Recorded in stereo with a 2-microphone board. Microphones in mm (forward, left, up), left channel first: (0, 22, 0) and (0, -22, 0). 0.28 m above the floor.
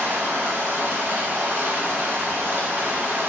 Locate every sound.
0.0 s running water: 60° right (ahead or behind), 0.9 m